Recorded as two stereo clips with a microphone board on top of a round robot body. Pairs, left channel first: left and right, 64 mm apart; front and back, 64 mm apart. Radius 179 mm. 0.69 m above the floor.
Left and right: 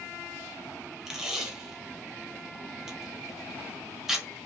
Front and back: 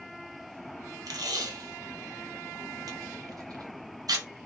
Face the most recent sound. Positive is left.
turn(degrees=-175)